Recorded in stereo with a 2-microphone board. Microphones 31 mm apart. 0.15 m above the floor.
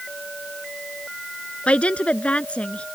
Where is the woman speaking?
45° left (ahead or behind).